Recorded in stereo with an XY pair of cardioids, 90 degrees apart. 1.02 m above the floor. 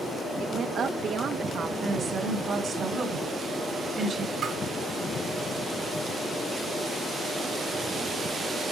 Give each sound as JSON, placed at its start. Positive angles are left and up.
{"t": 0.4, "sound": "a woman speaking", "azimuth_deg": -65, "distance_m": 1.0}
{"t": 1.8, "sound": "a woman speaking", "azimuth_deg": -65, "distance_m": 3.0}
{"t": 4.4, "sound": "tapping", "azimuth_deg": -70, "distance_m": 3.5}